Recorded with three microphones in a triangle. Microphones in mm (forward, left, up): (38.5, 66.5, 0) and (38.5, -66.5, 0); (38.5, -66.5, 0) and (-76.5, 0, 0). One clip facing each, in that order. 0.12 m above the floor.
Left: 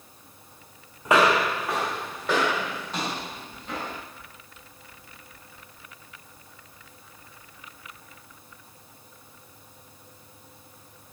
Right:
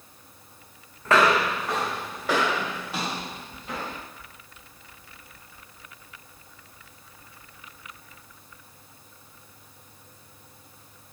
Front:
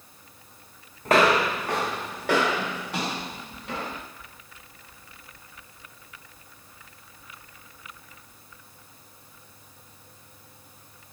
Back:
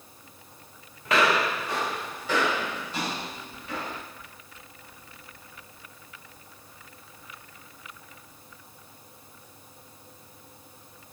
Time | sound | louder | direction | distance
1.1 | footsteps | even, front 4 dB | 15° left | 0.5 m